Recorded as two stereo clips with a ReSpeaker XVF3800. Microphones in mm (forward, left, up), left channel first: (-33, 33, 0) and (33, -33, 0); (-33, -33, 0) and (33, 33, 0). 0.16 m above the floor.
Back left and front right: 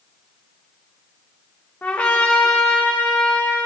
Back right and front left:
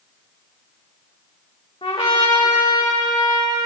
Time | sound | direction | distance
1.8 | a trumpet | 155° right | 3 m